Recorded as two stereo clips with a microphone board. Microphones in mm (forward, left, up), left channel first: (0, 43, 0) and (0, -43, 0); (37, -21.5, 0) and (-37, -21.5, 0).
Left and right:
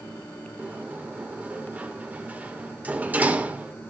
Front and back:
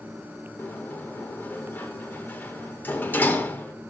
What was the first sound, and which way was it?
A sliding door, 35° right.